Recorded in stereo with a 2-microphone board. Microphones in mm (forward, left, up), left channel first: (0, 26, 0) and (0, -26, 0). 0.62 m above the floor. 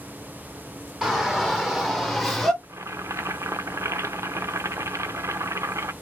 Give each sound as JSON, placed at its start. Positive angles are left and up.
{"t": 1.0, "sound": "a shout", "side_deg": -10, "distance_m": 2.5}
{"t": 2.6, "sound": "boiling", "side_deg": -75, "distance_m": 0.6}